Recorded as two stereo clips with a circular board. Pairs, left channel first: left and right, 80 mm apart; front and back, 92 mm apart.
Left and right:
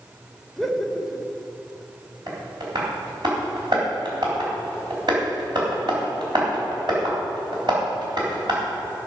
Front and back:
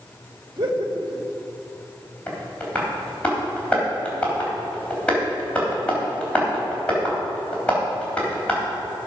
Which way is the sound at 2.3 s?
75° right.